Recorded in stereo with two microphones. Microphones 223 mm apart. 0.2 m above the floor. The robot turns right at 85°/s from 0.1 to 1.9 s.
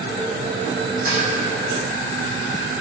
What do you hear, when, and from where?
1.1 s dishes clattering: 35° right (ahead or behind), 5 m; by 1.3 s 20° right (ahead or behind), 5 m